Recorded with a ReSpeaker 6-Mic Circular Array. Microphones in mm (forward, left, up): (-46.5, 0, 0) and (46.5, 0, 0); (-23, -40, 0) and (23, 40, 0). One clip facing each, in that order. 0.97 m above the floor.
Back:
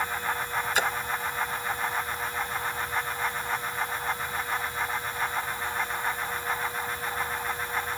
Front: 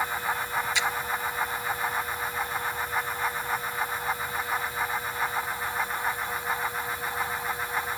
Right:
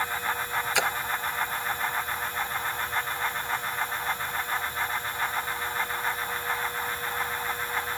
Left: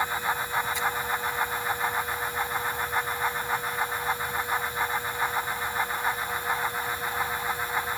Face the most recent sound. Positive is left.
turn(degrees=-135)